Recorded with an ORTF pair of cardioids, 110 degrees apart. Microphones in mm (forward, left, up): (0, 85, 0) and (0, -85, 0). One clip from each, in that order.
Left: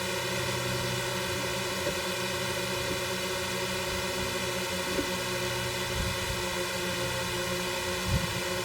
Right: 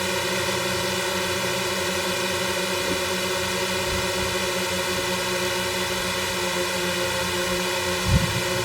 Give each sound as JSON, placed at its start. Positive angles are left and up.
{"t": 0.0, "sound": "a drone", "azimuth_deg": -40}